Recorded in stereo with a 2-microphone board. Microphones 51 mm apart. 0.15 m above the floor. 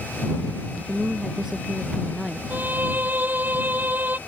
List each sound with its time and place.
0.9 s a woman speaking: 15° right (ahead or behind); by 2.4 s 5° right (ahead or behind)
2.5 s a violin: 35° right (ahead or behind)